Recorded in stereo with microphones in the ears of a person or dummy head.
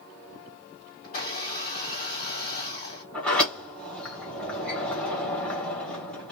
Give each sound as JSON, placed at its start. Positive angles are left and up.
{"t": 1.0, "sound": "a blender", "side_deg": 50, "distance_m": 1.4}
{"t": 3.1, "sound": "a sliding door", "side_deg": 5, "distance_m": 1.1}